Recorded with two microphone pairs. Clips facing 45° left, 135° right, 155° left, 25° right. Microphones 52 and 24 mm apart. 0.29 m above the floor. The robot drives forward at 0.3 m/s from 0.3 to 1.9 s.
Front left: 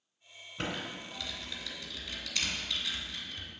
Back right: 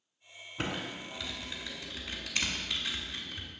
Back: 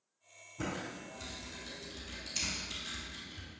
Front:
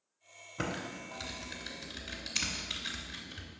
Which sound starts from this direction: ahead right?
Typing on a keyboard, at 0.6 s.